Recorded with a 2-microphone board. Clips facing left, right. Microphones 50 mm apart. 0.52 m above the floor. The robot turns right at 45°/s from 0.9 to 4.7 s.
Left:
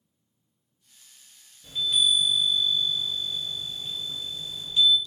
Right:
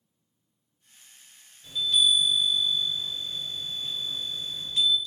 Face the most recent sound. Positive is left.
turn(degrees=-75)